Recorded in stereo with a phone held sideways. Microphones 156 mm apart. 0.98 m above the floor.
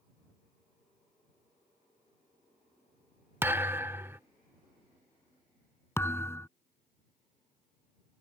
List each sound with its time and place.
3.4 s a thud: 15° right (ahead or behind)
6.0 s a thud: 15° left (ahead or behind)